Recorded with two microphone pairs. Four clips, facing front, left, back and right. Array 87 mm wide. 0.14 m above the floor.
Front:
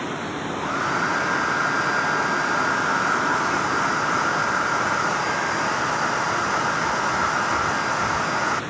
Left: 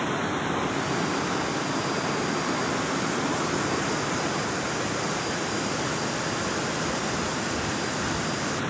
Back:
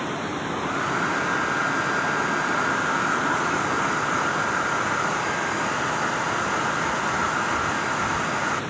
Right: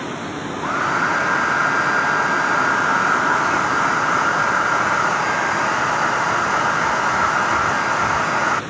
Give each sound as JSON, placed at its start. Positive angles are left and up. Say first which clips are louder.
{"t": 0.6, "sound": "a hair dryer", "louder": "right 7 dB, front 3 dB", "azimuth_deg": -80}